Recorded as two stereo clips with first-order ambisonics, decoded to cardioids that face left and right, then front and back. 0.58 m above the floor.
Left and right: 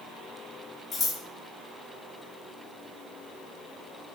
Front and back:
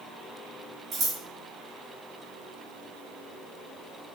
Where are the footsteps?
No footsteps in this recording.